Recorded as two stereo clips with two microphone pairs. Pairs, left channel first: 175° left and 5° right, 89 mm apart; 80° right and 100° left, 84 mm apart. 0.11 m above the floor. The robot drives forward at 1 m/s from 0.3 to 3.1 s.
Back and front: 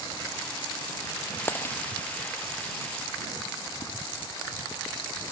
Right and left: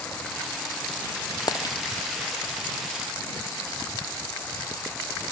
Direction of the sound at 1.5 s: 120° right.